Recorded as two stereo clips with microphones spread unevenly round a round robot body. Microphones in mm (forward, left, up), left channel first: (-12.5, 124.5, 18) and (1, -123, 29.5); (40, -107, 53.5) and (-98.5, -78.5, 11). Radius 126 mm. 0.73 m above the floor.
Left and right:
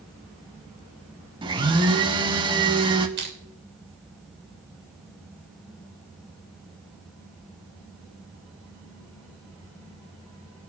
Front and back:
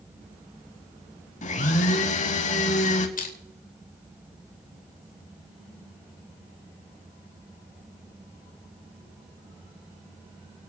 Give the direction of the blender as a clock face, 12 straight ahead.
1 o'clock.